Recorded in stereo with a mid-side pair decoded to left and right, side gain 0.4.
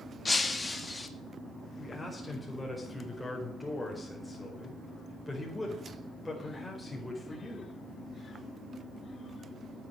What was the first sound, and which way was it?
Breaking glass, 25° left.